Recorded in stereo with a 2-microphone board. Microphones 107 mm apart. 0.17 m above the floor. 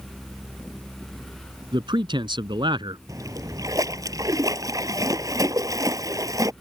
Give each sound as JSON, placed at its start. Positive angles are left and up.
{"t": 1.7, "sound": "a man speaking", "side_deg": -50}
{"t": 3.1, "sound": "a splash", "side_deg": -35}